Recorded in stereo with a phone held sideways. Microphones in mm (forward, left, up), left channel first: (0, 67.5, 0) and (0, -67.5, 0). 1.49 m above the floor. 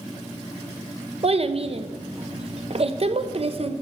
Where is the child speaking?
50° right (ahead or behind), 0.7 m.